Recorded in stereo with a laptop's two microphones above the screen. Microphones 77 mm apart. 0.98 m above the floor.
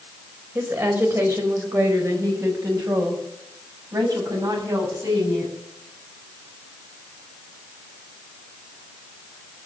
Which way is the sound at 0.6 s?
30° right (ahead or behind).